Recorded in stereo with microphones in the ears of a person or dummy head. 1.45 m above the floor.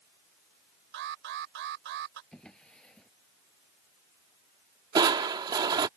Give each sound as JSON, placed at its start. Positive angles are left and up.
{"t": 0.9, "sound": "an alarm", "side_deg": -65}
{"t": 2.3, "sound": "a drawer", "side_deg": 5}
{"t": 5.0, "sound": "crushing", "side_deg": -25}